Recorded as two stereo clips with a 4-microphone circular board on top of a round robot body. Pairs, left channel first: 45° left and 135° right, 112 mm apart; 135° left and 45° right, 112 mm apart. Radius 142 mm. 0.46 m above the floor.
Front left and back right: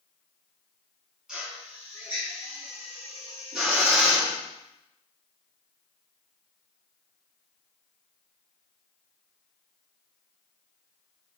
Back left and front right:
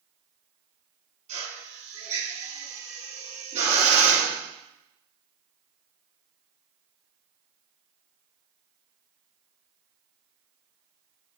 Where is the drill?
50° right, 5 m.